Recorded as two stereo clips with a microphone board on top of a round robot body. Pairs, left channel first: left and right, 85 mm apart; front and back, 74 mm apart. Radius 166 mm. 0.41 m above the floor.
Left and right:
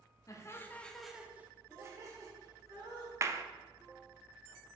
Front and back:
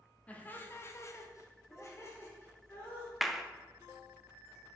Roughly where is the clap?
Right.